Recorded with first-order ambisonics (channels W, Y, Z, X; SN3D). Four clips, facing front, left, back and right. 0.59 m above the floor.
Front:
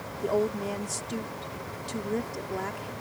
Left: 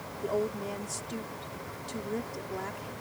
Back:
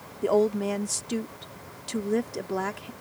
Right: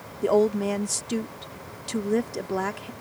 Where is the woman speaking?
115° right.